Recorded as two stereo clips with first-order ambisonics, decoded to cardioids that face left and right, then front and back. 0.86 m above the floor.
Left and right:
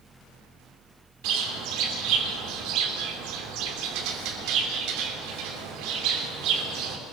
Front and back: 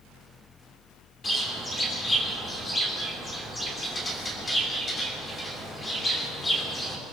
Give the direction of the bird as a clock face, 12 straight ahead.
2 o'clock.